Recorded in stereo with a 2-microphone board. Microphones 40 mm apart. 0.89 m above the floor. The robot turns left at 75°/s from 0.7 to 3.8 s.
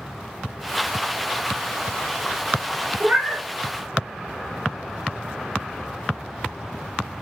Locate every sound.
3.0 s a cat meowing: 140° right, 0.7 m; by 3.4 s 170° right, 0.7 m